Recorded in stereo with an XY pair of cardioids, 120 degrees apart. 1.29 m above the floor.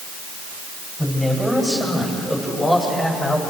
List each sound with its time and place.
1.0 s a man speaking: 10° left, 7.5 m; by 3.4 s 25° left, 6 m